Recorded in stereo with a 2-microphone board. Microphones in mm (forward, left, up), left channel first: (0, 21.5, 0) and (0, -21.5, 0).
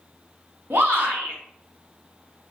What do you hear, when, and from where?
0.7 s a shout: 60° right (ahead or behind), 1.2 m